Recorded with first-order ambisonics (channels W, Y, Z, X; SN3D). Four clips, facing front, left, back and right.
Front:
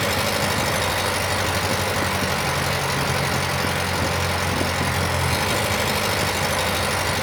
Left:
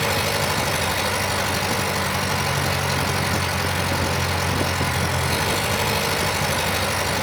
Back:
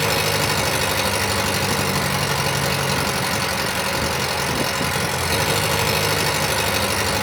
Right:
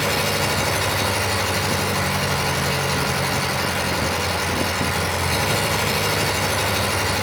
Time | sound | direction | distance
0.0 | an engine running | 175° right | 7.5 m